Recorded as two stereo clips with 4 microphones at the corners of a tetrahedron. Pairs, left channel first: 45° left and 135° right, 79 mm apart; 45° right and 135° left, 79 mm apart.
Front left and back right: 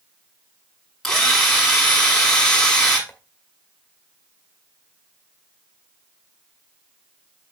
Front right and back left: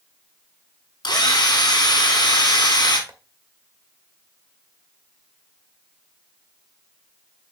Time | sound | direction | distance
1.0 | a drill | 40° right | 5 m
3.1 | tapping | 100° left | 1.6 m